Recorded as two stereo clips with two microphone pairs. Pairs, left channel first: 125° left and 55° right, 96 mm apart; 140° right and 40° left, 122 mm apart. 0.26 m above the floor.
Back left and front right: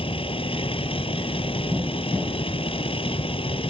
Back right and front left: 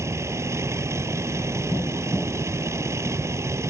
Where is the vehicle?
105° left.